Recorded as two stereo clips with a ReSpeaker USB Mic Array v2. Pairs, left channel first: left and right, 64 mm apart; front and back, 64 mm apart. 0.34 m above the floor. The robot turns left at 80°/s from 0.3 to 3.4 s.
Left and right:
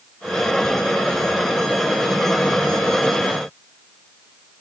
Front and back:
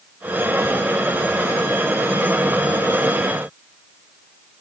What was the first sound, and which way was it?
Only background noise.